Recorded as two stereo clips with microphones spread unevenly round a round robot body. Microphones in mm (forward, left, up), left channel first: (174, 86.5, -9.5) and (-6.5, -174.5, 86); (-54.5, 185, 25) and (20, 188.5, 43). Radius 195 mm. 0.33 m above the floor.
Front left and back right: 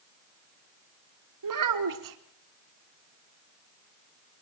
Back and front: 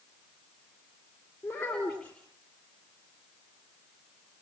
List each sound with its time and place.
1.4 s a child speaking: 100° right, 4 m